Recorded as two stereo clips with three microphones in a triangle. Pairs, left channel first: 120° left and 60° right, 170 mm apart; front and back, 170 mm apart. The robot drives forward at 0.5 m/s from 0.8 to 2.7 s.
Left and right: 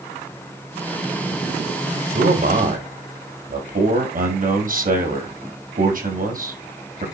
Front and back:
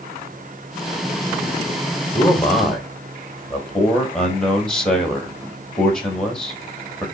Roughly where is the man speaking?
Right.